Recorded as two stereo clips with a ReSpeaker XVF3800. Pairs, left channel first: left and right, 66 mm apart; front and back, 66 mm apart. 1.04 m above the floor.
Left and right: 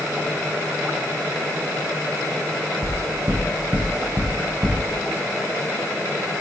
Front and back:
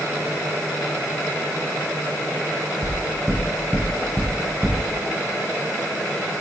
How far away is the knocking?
About 4 m.